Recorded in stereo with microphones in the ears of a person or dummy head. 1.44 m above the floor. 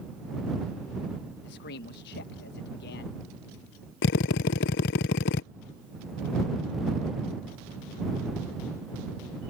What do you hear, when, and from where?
1.4 s a man speaking: 55° left (ahead or behind)
4.0 s a drill: 50° left (ahead or behind)